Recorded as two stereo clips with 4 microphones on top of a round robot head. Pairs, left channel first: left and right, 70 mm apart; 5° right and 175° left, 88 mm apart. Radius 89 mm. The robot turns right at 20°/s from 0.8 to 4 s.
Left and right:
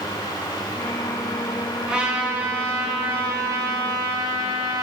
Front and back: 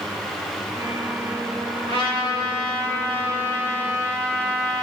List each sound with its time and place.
1.9 s a trumpet: 170° right, 7.5 m; by 4.8 s 125° right, 7.5 m